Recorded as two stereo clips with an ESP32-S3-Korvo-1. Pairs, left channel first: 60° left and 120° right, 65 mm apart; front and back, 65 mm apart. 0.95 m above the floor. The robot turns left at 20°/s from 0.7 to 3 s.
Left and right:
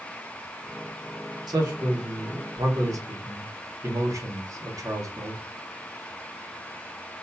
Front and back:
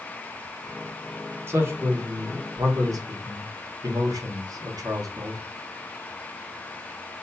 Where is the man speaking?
125° right, 1.5 m; by 5.4 s 155° right, 1.5 m.